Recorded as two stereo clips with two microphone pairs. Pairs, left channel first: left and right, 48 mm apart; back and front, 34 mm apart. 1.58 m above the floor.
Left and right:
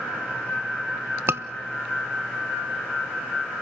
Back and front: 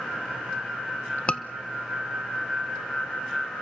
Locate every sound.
1.3 s a scream: 125° right, 1.1 m